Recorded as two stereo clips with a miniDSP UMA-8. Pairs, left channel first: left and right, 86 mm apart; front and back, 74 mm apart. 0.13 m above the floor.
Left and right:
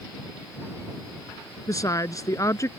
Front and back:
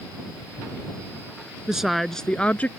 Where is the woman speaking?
100° left; by 2.7 s 60° left.